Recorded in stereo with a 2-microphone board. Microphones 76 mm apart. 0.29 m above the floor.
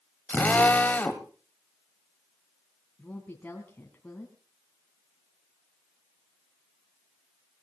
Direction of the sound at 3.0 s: 20° left (ahead or behind).